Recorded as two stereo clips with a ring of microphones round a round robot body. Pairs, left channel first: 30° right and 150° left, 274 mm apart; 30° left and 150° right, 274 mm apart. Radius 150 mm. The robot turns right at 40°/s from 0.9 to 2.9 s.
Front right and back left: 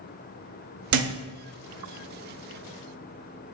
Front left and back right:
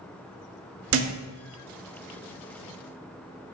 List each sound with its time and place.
0.9 s a thud: 170° left, 0.6 m; by 1.1 s 175° left, 0.6 m